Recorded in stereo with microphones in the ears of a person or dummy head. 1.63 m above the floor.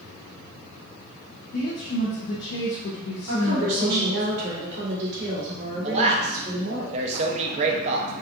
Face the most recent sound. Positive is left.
turn(degrees=-40)  # may be behind; listen again after turning